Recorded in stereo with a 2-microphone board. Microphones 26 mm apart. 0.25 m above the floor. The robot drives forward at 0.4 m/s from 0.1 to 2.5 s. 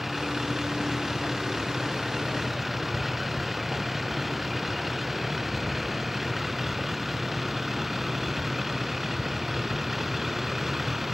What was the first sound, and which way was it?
A vehicle, 10° right (ahead or behind).